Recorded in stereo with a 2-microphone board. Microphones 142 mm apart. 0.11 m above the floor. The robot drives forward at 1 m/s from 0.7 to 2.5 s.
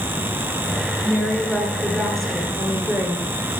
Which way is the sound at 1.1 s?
Centre (ahead or behind).